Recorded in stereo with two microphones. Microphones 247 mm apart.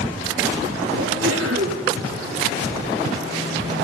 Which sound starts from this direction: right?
A sneeze, at 1.0 s.